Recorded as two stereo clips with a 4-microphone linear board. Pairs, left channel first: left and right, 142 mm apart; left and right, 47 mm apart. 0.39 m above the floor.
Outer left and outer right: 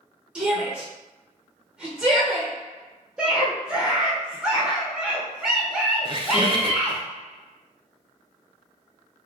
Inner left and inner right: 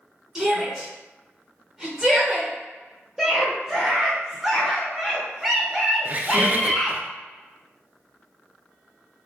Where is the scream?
5° right (ahead or behind), 0.8 m.